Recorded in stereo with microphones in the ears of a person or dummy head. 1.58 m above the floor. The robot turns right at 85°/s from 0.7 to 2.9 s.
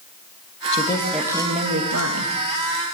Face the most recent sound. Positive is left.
turn(degrees=-30)